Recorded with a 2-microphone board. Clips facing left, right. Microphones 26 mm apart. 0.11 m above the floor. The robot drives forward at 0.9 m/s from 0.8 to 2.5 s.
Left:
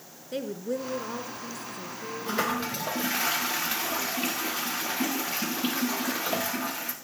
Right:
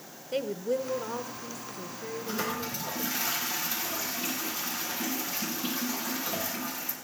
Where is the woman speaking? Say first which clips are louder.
Right 2 dB; 5° left (ahead or behind), 1.2 m.